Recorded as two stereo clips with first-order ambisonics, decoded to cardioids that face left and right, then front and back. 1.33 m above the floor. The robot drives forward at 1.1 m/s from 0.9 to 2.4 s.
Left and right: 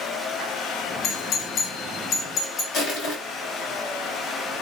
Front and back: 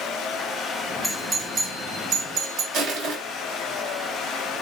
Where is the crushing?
145° left, 3.5 m.